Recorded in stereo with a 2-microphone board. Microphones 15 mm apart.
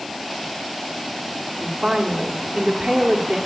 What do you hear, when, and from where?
1.6 s a woman speaking: 70° right (ahead or behind), 1.8 m